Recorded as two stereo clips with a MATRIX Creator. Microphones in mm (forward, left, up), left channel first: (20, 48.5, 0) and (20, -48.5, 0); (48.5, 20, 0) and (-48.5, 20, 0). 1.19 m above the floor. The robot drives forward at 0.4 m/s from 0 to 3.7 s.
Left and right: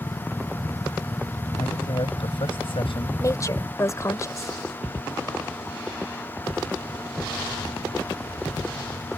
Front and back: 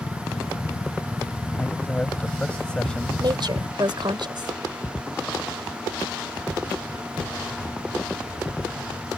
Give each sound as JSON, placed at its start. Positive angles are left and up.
{"t": 1.6, "sound": "a man speaking", "azimuth_deg": 75}
{"t": 3.2, "sound": "a woman speaking", "azimuth_deg": 145}